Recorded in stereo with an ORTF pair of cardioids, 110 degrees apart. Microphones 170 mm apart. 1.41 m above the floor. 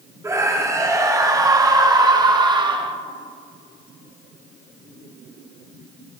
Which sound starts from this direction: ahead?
A scream, at 0.2 s.